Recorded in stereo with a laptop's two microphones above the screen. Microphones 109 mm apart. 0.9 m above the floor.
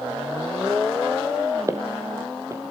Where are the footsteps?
30° right (ahead or behind), 2 m.